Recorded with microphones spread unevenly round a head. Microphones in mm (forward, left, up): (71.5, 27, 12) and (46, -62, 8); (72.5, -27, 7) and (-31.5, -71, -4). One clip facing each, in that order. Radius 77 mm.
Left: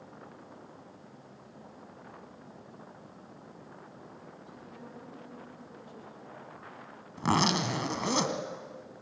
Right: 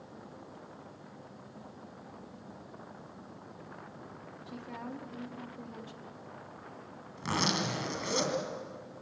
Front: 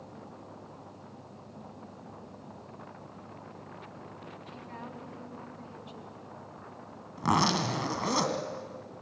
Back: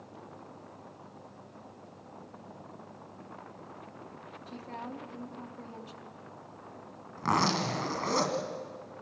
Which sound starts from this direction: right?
A woman speaking, at 4.5 s.